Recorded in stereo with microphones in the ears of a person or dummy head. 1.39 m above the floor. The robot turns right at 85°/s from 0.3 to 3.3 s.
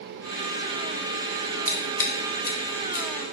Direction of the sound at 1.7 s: 10° right (ahead or behind).